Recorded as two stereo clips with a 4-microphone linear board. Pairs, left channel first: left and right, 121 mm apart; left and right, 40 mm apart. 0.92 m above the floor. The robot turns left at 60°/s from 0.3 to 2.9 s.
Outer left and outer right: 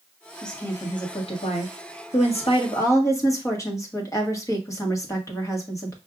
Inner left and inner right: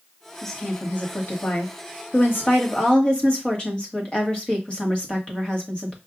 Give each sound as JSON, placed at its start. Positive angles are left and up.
{"t": 0.4, "sound": "a woman speaking", "azimuth_deg": 175, "distance_m": 1.2}